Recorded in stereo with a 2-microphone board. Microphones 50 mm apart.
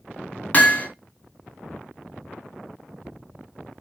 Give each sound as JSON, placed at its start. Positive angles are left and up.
{"t": 0.5, "sound": "hammering", "side_deg": 30, "distance_m": 1.5}